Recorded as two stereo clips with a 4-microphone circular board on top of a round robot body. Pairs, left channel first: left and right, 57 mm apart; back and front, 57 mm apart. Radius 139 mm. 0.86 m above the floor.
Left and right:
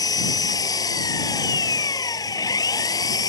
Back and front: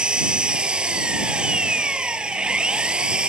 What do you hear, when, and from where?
0.0 s an engine running: 75° left